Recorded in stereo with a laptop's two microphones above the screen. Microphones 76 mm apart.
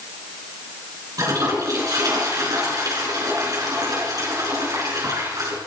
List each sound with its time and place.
1.2 s a toilet flushing: 55° right (ahead or behind), 4.5 m